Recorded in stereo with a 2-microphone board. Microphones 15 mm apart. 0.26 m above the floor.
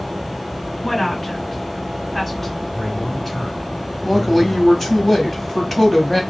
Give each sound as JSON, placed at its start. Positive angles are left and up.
{"t": 0.8, "sound": "a woman speaking", "side_deg": 20, "distance_m": 3.5}
{"t": 2.7, "sound": "a man speaking", "side_deg": 15, "distance_m": 3.0}
{"t": 4.0, "sound": "a woman speaking", "side_deg": 10, "distance_m": 1.2}